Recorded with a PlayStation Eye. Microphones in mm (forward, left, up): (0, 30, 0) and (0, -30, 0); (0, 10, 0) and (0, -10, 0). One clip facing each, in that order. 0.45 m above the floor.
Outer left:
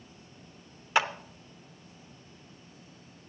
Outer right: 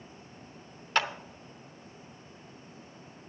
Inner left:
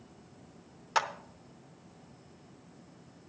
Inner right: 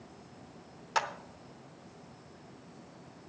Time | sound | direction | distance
0.9 | a clap | 10° left (ahead or behind) | 0.7 m